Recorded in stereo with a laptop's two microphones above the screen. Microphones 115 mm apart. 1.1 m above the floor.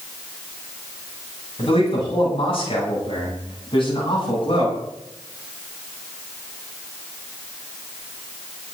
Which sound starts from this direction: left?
A man speaking, at 1.6 s.